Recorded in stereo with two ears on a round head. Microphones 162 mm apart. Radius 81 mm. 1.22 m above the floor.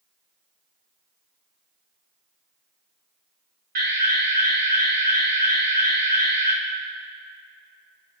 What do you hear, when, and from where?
3.8 s an alarm: 55° right (ahead or behind), 3.5 m